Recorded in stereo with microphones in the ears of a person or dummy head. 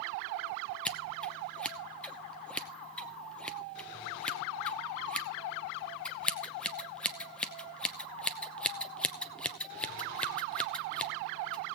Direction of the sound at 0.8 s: 5° left (ahead or behind).